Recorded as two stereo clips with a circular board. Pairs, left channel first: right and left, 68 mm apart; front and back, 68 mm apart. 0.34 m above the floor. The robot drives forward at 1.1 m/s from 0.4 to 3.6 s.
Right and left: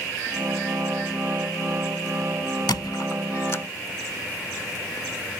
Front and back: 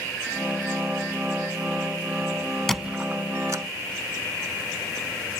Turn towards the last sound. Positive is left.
turn(degrees=-140)